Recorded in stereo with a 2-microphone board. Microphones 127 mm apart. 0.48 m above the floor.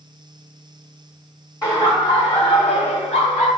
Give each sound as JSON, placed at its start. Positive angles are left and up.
{"t": 1.6, "sound": "laughter", "side_deg": 30, "distance_m": 1.1}